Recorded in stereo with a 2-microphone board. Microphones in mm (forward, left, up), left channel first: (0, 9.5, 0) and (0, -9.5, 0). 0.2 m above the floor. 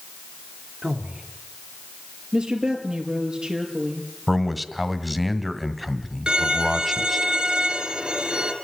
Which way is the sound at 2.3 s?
55° right (ahead or behind).